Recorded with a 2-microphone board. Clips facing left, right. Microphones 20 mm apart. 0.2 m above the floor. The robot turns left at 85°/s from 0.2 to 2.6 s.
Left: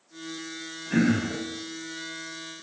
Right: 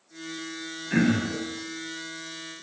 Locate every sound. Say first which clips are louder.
0.9 s throat clearing: even; 15° right (ahead or behind), 1.5 m; by 1.4 s 5° right (ahead or behind), 1.5 m